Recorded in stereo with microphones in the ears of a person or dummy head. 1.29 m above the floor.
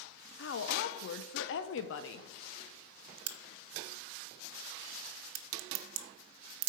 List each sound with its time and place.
0.4 s a woman speaking: 65° left (ahead or behind), 0.7 m
3.3 s a crack: 80° right, 0.8 m